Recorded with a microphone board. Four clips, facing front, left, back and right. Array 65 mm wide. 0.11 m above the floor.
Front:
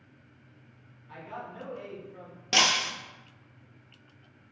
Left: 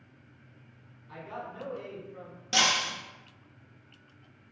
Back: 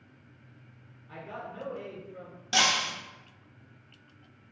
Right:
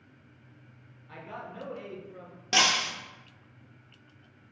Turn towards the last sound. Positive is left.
turn(degrees=-30)